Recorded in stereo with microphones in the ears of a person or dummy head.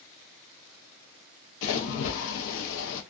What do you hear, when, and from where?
1.6 s a splash: 70° left (ahead or behind), 0.5 m